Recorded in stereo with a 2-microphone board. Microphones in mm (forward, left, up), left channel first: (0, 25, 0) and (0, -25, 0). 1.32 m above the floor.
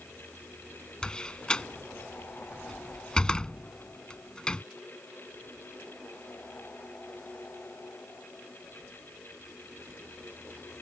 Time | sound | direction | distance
1.0 | a door slam | 15° left (ahead or behind) | ?